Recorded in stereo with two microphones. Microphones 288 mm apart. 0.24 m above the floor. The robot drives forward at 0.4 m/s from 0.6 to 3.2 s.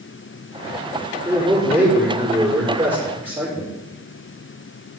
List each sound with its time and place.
1.2 s a man speaking: 5° right (ahead or behind), 5.5 m